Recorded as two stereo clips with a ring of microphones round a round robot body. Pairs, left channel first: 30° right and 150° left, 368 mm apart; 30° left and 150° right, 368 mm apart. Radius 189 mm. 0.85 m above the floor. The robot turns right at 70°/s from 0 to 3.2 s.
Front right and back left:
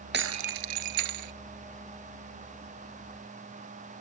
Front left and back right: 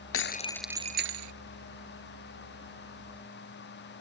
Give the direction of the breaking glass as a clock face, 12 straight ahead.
9 o'clock.